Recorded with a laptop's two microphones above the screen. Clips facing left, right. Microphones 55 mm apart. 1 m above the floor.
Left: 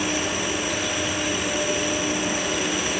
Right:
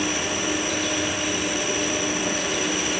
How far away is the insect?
About 2.0 m.